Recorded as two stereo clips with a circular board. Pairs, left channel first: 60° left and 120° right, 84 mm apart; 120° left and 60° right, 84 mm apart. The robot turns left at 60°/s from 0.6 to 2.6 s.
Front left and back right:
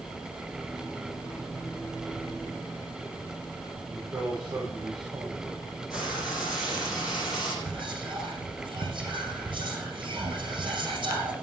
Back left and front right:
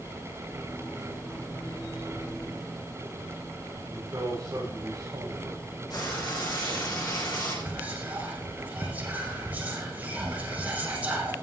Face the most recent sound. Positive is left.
turn(degrees=-135)